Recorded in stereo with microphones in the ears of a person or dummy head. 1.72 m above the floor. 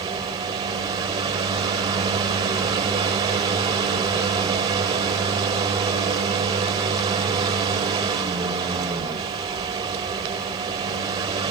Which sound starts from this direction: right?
A fan, at 0.0 s.